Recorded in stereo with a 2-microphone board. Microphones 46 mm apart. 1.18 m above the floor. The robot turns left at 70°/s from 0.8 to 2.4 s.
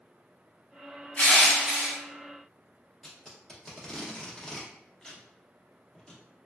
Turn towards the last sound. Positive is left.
turn(degrees=15)  # may be behind; listen again after turning